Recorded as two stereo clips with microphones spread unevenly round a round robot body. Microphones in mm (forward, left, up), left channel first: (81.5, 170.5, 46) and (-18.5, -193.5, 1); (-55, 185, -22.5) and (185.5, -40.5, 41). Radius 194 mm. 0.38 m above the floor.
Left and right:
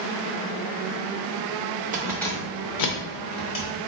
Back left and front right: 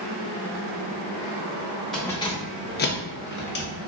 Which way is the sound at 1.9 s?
150° right.